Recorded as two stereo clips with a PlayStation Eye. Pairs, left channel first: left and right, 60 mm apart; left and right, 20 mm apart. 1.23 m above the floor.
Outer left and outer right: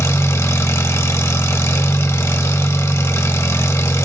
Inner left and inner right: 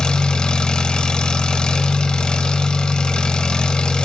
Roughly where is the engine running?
Left.